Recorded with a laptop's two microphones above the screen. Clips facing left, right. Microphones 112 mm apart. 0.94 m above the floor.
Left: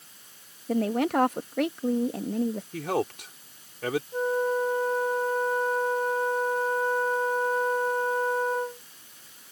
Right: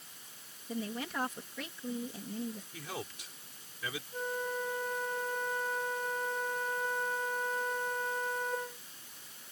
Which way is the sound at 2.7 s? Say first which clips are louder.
Left 15 dB; 65° left (ahead or behind).